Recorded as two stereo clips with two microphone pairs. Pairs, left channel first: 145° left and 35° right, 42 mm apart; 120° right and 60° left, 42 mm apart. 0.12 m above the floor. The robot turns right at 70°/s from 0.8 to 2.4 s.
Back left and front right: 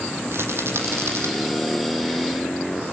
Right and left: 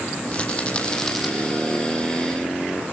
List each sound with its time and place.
0.3 s a rattle: 55° right, 5 m; by 1.3 s 20° right, 5 m